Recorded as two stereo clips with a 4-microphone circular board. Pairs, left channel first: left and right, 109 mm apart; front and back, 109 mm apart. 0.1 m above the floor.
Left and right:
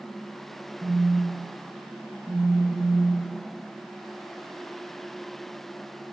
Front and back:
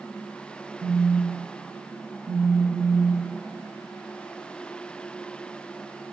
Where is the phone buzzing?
155° right, 7.5 m.